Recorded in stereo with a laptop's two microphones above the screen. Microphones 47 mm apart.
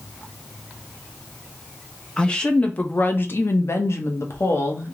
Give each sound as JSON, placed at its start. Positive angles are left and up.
{"t": 2.2, "sound": "a woman speaking", "side_deg": 15, "distance_m": 1.0}